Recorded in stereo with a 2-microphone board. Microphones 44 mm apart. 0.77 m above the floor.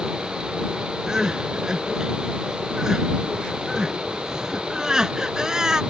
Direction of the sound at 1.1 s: 15° right (ahead or behind).